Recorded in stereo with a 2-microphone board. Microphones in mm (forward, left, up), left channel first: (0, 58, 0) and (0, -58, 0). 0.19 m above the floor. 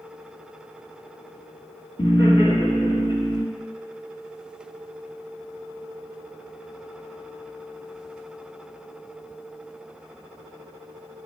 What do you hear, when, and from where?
2.0 s laughter: 50° left (ahead or behind), 2.5 m